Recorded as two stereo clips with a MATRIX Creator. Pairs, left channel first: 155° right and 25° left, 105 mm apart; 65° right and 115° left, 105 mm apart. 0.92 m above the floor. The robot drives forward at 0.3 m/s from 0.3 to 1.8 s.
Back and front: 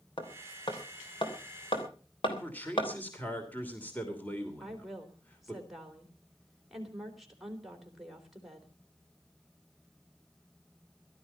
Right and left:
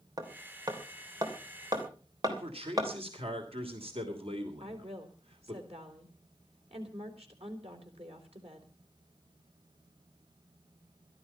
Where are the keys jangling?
No keys jangling in this recording.